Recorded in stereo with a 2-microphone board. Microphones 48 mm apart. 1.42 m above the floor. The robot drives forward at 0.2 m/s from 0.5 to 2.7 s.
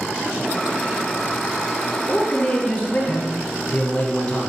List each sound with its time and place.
2.1 s a man speaking: 25° left (ahead or behind), 0.7 m; by 4.5 s 30° left (ahead or behind), 0.6 m